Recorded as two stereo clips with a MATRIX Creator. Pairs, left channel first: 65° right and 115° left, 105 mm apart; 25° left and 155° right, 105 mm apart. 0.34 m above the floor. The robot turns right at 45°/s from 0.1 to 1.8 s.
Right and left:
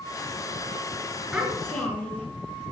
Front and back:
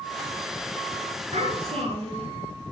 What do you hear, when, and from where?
1.3 s a child speaking: 165° right, 3.5 m; by 2.3 s 145° right, 3.5 m